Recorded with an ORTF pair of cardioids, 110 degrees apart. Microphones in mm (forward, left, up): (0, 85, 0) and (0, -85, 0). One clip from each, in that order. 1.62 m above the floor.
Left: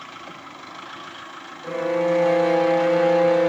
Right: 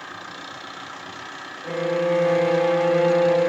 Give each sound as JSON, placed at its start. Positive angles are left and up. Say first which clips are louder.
{"t": 1.6, "sound": "a violin", "louder": "left 1 dB", "azimuth_deg": 5, "distance_m": 1.2}